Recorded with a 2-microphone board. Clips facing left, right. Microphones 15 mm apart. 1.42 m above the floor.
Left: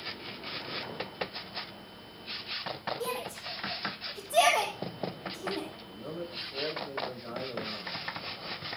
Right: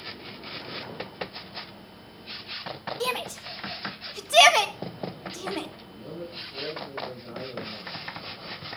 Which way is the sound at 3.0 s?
75° right (ahead or behind).